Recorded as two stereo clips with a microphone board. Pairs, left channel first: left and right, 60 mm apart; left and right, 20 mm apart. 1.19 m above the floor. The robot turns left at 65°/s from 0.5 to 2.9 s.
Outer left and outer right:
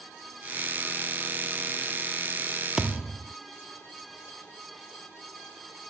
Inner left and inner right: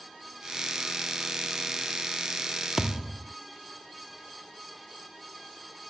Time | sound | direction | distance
2.8 | a thud | 10° right (ahead or behind) | ?